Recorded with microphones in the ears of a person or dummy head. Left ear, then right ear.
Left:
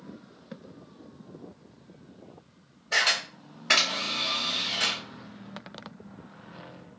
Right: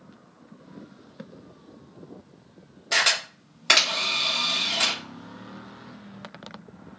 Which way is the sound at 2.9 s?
65° right (ahead or behind).